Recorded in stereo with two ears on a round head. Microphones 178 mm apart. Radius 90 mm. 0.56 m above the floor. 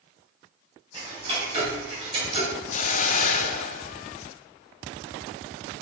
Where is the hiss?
35° left (ahead or behind), 0.5 m.